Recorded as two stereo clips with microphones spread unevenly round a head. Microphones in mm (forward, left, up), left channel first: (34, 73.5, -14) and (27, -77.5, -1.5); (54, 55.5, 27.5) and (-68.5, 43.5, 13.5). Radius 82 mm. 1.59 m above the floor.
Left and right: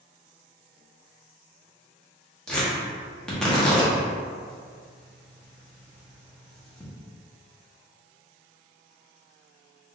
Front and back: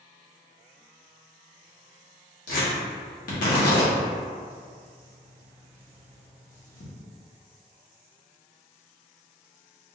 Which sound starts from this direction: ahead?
Tearing paper, at 2.5 s.